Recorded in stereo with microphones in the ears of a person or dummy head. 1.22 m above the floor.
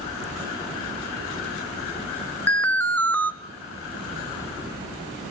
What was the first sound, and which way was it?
An alarm, 5° left (ahead or behind).